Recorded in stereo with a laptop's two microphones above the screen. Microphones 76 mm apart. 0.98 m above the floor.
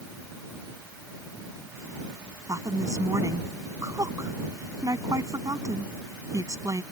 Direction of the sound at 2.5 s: 50° right (ahead or behind).